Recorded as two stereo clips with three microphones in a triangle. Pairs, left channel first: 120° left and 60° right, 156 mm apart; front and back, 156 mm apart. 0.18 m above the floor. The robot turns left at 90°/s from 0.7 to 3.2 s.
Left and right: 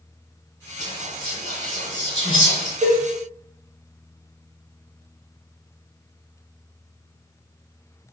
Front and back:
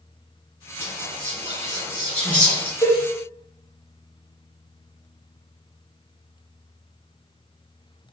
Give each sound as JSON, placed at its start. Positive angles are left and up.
{"t": 0.8, "sound": "whispering", "azimuth_deg": -140, "distance_m": 1.7}
{"t": 2.8, "sound": "a cowbell", "azimuth_deg": -40, "distance_m": 1.8}